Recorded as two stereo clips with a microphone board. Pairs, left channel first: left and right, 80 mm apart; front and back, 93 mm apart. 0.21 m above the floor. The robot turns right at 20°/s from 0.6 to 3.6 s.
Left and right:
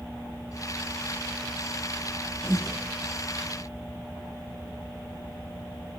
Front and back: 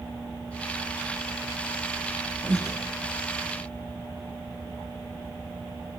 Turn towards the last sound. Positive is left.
turn(degrees=-155)